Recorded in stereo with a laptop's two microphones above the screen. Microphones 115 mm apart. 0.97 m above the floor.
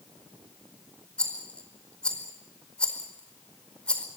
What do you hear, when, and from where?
1.2 s a rattle: 10° left (ahead or behind), 4.5 m